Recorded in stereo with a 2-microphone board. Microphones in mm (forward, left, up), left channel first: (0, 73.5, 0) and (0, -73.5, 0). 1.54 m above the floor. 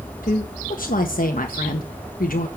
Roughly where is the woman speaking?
Left.